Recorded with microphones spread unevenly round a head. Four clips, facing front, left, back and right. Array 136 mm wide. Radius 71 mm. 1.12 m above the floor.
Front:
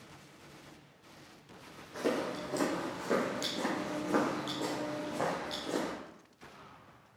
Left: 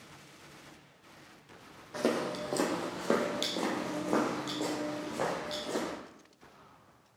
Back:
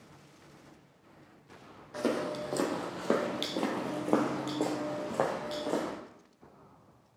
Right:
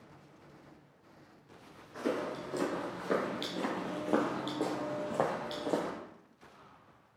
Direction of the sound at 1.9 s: 120° left.